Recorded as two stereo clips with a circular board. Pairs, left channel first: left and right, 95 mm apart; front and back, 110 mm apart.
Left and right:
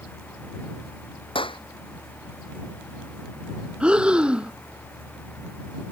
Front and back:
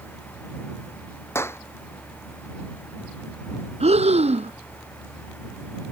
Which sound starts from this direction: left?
A clap, at 1.4 s.